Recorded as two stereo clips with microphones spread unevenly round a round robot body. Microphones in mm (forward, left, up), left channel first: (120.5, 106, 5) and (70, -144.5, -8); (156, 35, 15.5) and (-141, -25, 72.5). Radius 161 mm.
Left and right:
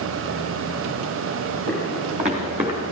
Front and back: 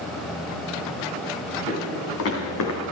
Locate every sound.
1.7 s footsteps: 45° right, 4.5 m; by 2.8 s 30° right, 3.5 m